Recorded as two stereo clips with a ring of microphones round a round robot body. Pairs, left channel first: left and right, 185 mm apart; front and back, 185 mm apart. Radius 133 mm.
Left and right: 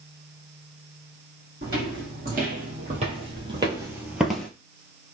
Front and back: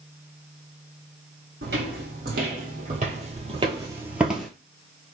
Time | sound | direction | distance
1.6 | footsteps | 140° right | 1.5 m